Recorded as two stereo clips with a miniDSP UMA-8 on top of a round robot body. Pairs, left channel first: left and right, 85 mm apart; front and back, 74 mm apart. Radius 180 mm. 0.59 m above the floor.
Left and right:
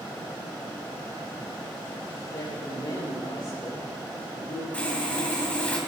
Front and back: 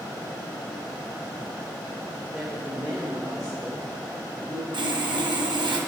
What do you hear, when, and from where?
2.3 s a woman speaking: 105° left, 4 m; by 4.6 s 85° left, 4 m
4.7 s sawing: 165° left, 1.6 m